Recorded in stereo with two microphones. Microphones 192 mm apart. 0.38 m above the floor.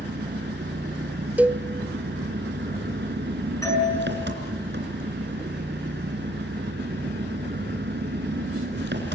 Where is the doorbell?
15° left (ahead or behind), 6.5 m.